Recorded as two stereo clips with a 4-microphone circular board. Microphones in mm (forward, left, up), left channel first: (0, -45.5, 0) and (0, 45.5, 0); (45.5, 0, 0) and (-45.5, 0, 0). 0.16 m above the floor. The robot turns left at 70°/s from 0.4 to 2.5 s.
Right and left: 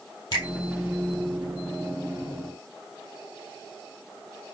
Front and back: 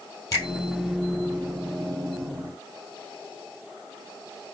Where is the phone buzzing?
I don't hear a phone buzzing.